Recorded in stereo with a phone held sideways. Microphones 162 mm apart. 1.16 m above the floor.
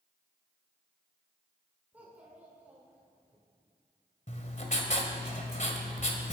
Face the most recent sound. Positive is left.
turn(degrees=50)  # may be behind; listen again after turning